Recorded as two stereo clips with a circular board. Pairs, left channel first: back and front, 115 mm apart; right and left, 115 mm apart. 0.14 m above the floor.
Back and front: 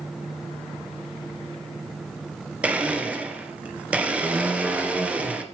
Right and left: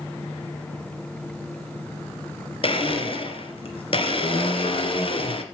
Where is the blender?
75° right, 1.8 m.